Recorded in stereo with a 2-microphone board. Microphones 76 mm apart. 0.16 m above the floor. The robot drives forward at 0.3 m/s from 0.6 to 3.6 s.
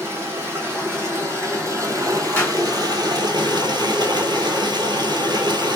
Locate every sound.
0.0 s running water: 35° right (ahead or behind), 1.3 m; by 5.8 s 75° right (ahead or behind), 0.7 m
2.4 s a clap: 20° left (ahead or behind), 1.3 m